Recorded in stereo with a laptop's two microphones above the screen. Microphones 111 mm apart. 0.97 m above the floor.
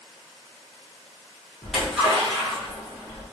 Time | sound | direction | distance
1.6 | a splash | centre (ahead or behind) | 1.7 m